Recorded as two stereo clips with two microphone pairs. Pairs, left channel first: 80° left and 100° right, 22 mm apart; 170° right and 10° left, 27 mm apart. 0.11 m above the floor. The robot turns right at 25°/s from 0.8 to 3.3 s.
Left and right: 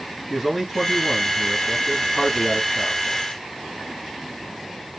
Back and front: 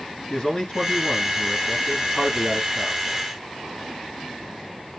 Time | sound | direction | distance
0.3 | a man speaking | 155° right | 1.7 m